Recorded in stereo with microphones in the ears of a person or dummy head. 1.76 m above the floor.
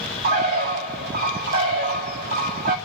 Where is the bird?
50° right (ahead or behind), 1.1 m.